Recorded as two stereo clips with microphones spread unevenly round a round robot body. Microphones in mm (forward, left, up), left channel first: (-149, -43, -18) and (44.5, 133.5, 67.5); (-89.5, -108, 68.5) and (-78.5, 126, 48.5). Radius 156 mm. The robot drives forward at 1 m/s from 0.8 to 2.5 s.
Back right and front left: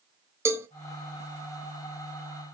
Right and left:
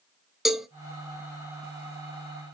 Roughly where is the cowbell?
Behind.